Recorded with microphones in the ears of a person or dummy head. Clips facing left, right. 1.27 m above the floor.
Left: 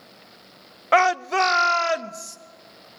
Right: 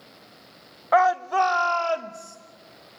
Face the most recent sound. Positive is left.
turn(degrees=15)  # may be behind; listen again after turning